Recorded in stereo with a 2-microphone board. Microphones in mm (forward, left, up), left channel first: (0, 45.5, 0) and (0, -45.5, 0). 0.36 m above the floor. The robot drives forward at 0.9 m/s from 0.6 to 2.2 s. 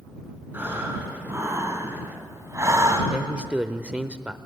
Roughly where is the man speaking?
Centre.